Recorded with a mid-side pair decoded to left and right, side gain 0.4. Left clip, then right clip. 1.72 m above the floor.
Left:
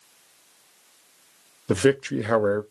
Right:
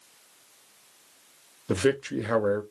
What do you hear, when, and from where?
1.7 s a man speaking: 35° left, 0.7 m